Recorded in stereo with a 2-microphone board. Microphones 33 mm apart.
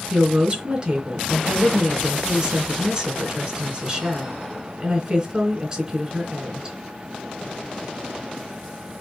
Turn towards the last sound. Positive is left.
turn(degrees=-25)  # may be behind; listen again after turning